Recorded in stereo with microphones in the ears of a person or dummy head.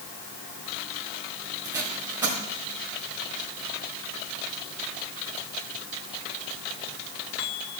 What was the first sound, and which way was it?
Tape being pulled, 20° right (ahead or behind).